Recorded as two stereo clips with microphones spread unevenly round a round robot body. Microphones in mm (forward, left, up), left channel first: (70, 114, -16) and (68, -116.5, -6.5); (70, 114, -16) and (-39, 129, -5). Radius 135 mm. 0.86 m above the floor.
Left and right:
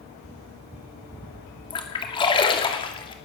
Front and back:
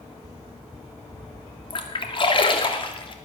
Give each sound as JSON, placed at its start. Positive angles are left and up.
{"t": 1.7, "sound": "a splash", "azimuth_deg": 25, "distance_m": 2.5}